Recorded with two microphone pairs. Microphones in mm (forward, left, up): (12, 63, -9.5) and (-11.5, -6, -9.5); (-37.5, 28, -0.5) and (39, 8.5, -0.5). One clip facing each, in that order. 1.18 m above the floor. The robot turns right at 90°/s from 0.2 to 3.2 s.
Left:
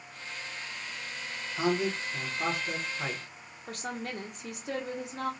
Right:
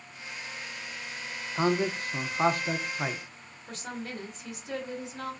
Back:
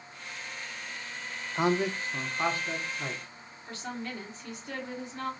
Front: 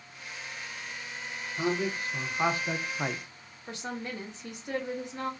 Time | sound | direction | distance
1.6 | a man speaking | 175° right | 0.5 m
3.7 | a woman speaking | 55° left | 1.2 m